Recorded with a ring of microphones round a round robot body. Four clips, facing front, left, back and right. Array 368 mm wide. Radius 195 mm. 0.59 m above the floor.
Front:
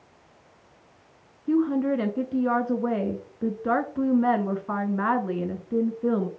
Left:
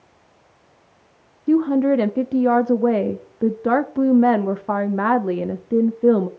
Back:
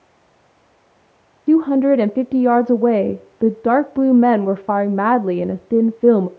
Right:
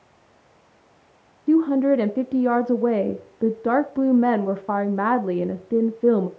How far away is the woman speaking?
About 0.8 m.